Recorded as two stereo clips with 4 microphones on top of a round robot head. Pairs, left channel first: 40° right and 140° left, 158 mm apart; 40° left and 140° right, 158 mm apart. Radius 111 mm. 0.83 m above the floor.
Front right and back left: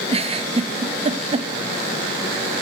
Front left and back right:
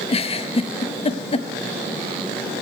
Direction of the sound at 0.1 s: 90° left.